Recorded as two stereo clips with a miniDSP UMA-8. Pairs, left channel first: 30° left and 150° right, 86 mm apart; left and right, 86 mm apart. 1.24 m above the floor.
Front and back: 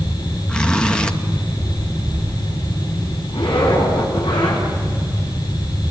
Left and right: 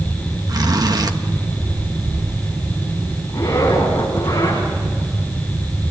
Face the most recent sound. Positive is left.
turn(degrees=30)